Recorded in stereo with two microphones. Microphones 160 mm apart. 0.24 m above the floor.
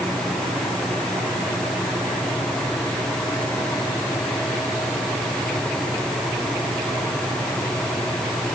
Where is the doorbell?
I don't hear a doorbell.